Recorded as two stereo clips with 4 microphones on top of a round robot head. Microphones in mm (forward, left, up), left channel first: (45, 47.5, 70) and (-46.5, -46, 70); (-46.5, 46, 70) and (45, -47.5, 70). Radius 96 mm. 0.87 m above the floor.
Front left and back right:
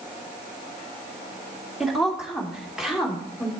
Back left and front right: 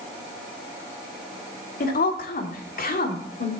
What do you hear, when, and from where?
1.8 s a woman speaking: 140° left, 2.5 m